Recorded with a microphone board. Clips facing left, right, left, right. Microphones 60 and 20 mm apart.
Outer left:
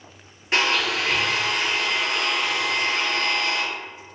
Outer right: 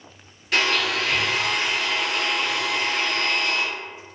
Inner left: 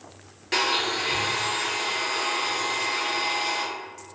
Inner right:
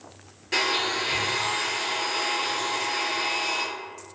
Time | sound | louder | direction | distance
0.5 | a blender | even, inner left 1 dB | 30° left (ahead or behind) | 0.9 m